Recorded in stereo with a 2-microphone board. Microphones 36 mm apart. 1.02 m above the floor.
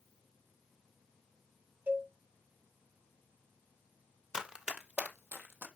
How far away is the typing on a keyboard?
No typing on a keyboard in this recording.